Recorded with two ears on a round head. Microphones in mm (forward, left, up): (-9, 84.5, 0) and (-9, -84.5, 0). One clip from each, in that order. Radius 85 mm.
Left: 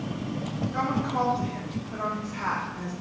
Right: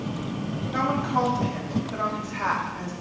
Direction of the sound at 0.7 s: 30° right (ahead or behind).